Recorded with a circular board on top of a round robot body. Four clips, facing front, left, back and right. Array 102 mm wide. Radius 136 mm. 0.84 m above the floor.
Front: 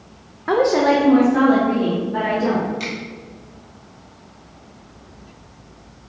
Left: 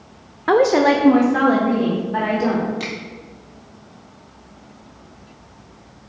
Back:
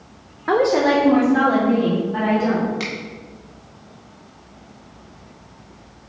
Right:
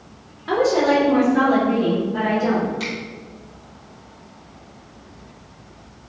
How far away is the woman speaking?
About 0.6 m.